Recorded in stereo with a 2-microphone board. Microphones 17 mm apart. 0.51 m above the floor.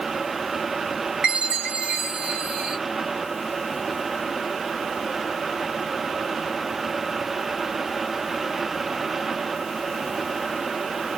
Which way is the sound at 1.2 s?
75° right (ahead or behind).